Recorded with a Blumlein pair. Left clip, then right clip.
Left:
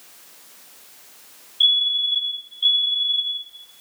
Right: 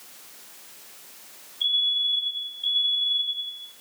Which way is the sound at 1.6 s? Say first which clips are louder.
Left 5 dB; 40° left.